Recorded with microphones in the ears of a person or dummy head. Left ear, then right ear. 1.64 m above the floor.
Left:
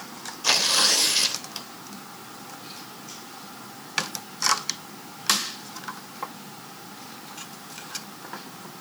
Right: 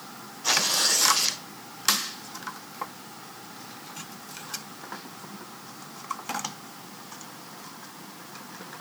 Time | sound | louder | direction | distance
0.4 | tearing paper | left 3 dB | 25° left (ahead or behind) | 3 m